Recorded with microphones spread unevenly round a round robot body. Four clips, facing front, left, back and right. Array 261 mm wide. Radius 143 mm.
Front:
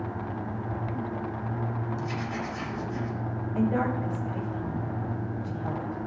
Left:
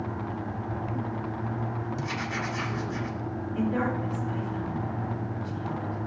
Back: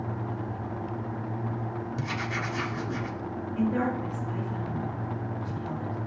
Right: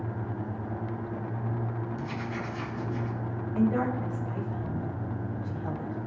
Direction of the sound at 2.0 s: 155° left.